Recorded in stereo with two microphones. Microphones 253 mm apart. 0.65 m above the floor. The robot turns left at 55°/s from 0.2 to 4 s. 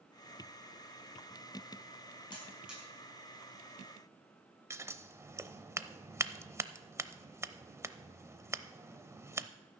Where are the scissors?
10° right (ahead or behind), 0.5 m.